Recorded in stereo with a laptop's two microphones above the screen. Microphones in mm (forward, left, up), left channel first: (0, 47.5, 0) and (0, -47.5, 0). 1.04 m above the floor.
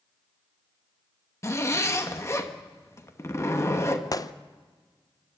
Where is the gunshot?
40° left (ahead or behind), 0.6 m.